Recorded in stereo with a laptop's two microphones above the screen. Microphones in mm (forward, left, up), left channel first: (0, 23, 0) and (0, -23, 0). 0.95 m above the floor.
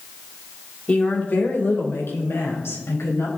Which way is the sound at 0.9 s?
25° left (ahead or behind).